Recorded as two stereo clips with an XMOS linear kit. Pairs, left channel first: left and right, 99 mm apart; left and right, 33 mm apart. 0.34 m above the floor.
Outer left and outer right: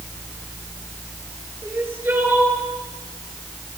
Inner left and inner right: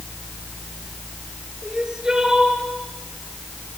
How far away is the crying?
About 4.5 m.